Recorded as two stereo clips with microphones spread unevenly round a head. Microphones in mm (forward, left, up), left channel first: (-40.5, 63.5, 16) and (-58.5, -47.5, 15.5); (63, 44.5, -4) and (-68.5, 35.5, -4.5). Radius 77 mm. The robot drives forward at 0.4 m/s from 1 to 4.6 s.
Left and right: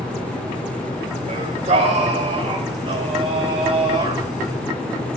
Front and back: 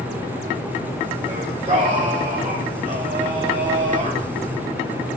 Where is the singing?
120° right, 2 m; by 4.2 s 140° right, 3 m.